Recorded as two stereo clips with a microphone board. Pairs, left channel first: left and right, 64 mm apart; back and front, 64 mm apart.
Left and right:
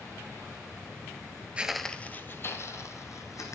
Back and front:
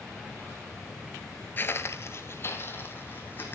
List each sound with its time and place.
1.6 s footsteps: 150° right, 0.6 m; by 3.5 s 125° left, 2 m